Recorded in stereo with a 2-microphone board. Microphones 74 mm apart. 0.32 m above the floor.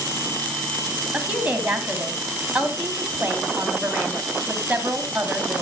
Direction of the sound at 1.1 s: 15° right (ahead or behind).